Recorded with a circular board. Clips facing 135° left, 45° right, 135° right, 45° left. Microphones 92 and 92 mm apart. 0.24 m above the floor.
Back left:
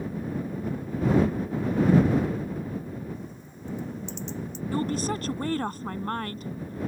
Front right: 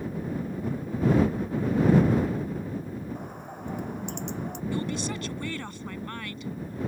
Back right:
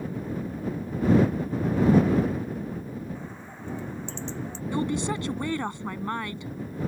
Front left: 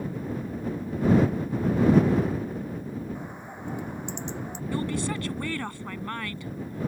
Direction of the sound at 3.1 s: 25° right.